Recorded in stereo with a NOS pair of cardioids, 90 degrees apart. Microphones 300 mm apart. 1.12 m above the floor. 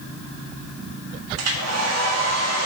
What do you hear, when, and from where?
1.4 s a hair dryer: 55° right, 1.7 m